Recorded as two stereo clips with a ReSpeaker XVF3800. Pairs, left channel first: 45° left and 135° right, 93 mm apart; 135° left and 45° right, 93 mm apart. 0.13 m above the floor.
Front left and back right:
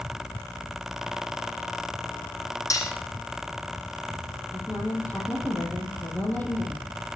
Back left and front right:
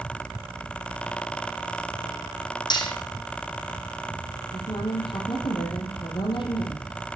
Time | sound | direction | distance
2.7 | cutlery clinking | 100° left | 3 m
4.5 | a woman speaking | 115° left | 4.5 m